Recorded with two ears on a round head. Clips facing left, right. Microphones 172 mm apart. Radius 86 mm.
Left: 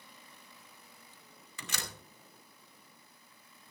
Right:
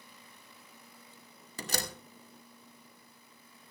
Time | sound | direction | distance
1.6 | a door slam | 35° right (ahead or behind) | 2.5 m